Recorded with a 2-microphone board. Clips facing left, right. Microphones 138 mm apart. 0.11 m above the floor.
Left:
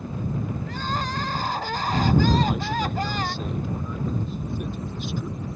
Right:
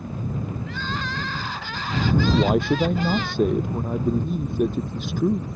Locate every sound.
0.7 s crying: 40° left (ahead or behind)
2.4 s a man speaking: 60° right (ahead or behind)